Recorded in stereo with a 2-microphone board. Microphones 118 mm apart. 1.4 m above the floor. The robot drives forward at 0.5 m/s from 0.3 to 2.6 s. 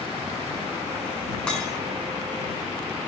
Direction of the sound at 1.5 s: 5° left (ahead or behind).